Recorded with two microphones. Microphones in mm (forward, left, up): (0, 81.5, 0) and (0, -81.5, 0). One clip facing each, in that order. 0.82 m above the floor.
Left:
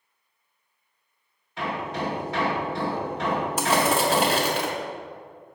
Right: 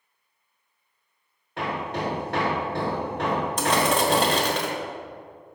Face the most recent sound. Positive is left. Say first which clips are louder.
# even
turn(degrees=10)  # may be behind; listen again after turning